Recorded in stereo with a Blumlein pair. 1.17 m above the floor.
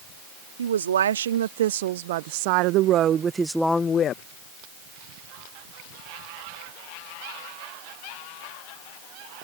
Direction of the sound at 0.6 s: 65° right.